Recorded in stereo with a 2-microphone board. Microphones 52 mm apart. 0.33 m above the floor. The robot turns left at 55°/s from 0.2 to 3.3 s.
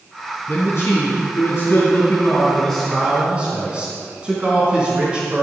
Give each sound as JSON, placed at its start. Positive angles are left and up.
{"t": 0.5, "sound": "a man speaking", "azimuth_deg": 135, "distance_m": 4.0}